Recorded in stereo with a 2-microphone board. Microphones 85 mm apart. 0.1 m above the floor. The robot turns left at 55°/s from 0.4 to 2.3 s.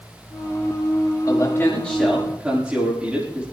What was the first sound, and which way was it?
A man speaking, 45° left.